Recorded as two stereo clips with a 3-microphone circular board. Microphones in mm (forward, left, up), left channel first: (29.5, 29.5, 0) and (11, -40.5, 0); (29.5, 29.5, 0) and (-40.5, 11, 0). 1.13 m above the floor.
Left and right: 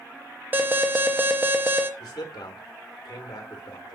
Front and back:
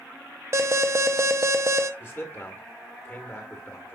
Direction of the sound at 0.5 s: 155° right.